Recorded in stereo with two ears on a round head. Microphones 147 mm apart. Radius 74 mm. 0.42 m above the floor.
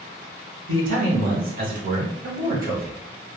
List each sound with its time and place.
0.7 s a man speaking: 55° right (ahead or behind), 1.3 m